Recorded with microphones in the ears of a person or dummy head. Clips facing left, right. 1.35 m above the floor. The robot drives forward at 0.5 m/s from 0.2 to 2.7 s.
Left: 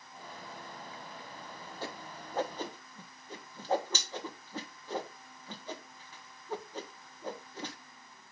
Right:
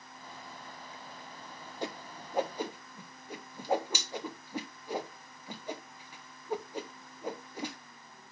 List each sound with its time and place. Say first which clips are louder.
1.8 s a whoosh: right 4 dB; 15° right (ahead or behind), 0.6 m; by 7.8 s 10° right (ahead or behind), 1.0 m